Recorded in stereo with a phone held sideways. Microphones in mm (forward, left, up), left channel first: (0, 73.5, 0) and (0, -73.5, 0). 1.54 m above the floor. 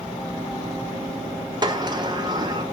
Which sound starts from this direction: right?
A sliding door, at 1.6 s.